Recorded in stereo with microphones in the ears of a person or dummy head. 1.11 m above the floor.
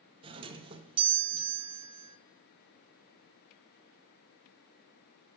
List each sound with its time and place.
0.2 s a doorbell: 25° right (ahead or behind), 0.6 m